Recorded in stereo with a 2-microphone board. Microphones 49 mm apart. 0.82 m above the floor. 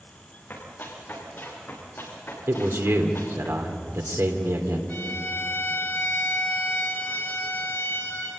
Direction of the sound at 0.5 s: 40° left (ahead or behind).